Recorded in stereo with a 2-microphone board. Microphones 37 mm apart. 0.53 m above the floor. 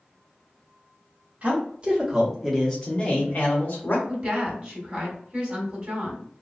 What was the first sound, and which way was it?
A man speaking, 40° right (ahead or behind).